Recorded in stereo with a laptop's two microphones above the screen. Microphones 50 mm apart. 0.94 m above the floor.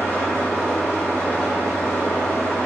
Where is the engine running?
60° left (ahead or behind), 1.0 m.